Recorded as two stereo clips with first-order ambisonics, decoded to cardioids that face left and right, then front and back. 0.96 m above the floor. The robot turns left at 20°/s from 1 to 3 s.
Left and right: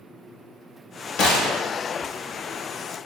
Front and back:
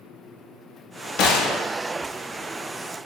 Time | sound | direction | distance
1.2 | a gunshot | 40° left | 0.6 m